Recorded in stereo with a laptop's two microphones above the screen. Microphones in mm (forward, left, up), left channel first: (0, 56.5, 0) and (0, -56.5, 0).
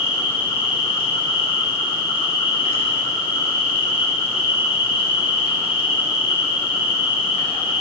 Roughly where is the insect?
Left.